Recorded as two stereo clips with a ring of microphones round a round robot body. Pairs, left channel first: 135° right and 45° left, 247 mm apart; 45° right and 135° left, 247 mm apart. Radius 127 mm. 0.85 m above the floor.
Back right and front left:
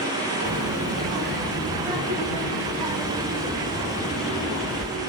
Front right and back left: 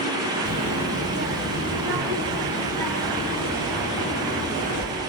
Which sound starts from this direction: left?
A child speaking, at 0.5 s.